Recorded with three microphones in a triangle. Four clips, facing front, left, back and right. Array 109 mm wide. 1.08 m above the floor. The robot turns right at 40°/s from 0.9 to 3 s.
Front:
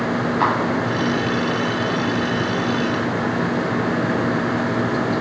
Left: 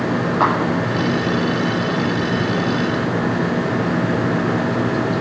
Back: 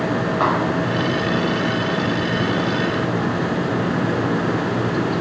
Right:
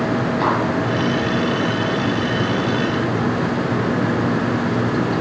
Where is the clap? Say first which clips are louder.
Left 3 dB, even; 120° left, 6 m.